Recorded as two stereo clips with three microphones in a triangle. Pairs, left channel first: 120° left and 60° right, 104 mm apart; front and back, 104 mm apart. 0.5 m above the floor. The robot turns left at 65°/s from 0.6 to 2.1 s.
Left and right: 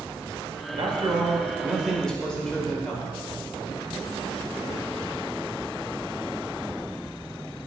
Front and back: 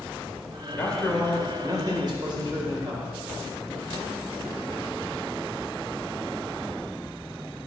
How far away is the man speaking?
About 2 m.